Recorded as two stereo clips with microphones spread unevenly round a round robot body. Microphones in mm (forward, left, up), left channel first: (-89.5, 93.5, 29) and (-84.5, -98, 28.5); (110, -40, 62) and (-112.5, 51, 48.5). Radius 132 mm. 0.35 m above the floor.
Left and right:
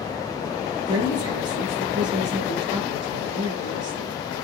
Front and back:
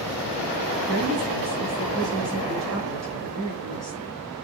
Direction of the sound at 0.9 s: 110° right.